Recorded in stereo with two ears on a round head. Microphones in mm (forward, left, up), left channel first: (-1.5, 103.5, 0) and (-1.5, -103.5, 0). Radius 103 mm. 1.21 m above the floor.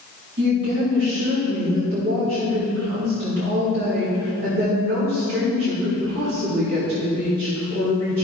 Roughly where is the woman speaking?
Right.